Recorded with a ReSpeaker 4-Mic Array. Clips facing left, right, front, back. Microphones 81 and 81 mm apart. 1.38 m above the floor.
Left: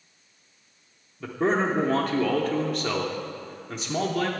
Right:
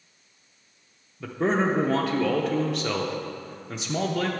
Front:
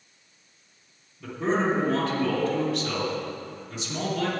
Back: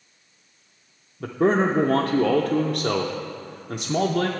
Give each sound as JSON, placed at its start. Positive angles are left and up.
{"t": 1.2, "sound": "a man speaking", "azimuth_deg": 180, "distance_m": 0.5}